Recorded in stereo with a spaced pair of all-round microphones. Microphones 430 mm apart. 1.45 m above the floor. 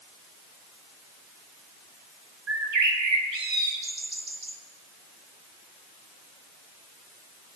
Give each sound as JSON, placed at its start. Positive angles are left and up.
{"t": 2.5, "sound": "a bird", "side_deg": -70, "distance_m": 1.3}